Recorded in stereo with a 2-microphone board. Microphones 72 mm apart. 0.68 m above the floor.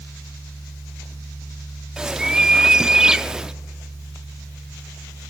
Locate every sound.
2.0 s a bird: 10° right (ahead or behind), 0.5 m